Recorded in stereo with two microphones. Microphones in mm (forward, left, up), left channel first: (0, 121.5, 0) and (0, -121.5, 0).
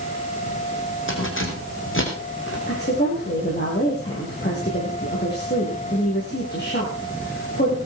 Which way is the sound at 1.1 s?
55° left (ahead or behind).